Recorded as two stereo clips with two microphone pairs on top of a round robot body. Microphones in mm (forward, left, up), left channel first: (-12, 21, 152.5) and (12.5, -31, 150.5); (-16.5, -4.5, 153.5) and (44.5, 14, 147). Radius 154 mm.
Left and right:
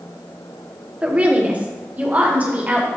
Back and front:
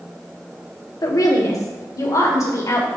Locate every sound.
1.0 s a woman speaking: 130° right, 1.4 m; by 2.9 s 125° right, 2.5 m